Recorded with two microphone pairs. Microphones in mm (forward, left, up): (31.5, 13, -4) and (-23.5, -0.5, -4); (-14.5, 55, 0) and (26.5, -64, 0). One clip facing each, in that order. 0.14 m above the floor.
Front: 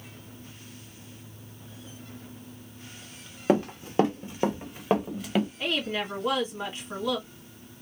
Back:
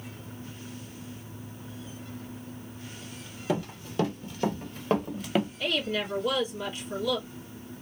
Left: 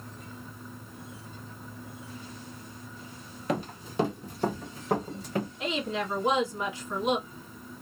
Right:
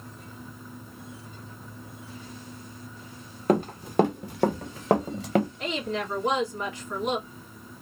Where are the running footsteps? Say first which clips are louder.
Front 6 dB, right 8 dB; 30° right, 1.3 m; by 5.5 s 85° right, 1.1 m.